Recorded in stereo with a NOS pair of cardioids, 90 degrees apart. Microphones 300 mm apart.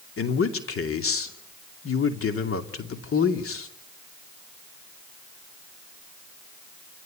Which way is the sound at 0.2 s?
45° left.